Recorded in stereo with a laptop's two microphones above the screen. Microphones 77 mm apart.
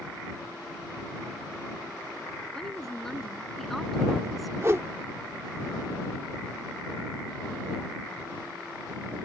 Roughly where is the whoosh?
Right.